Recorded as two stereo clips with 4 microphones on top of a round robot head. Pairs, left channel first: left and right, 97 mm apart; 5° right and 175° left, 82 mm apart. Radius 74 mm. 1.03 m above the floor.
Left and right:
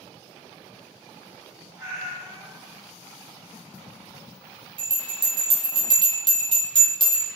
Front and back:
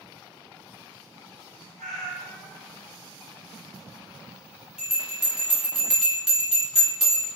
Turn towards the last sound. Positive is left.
turn(degrees=-100)